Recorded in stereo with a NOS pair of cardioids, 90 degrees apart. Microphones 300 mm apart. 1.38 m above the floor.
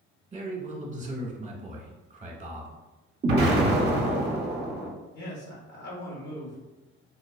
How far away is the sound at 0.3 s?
About 1.4 m.